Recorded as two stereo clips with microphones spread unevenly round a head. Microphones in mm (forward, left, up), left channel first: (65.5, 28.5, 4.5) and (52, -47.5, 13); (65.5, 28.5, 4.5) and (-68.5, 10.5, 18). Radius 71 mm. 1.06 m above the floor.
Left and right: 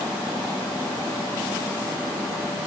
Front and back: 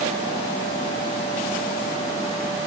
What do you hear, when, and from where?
Only background noise.